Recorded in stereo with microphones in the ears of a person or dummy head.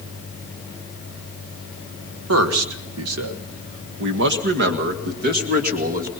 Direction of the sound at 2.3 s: 80° right.